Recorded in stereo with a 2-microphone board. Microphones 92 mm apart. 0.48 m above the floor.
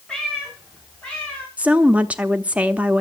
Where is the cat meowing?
5° left (ahead or behind), 8 m; by 1.5 s 15° left (ahead or behind), 6 m.